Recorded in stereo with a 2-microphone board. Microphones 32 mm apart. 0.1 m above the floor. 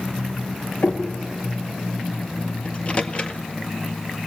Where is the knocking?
70° left (ahead or behind), 6.5 m.